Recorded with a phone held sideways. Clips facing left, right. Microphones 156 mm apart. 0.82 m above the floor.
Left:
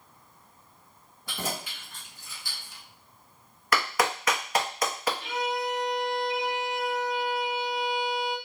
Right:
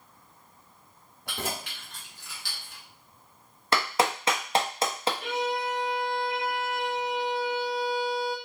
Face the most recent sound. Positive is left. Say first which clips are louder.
# right 1 dB
turn(degrees=-50)  # may be behind; listen again after turning